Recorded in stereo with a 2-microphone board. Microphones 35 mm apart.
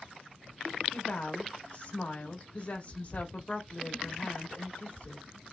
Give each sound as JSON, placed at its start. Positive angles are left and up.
{"t": 0.9, "sound": "a woman speaking", "side_deg": 45, "distance_m": 1.6}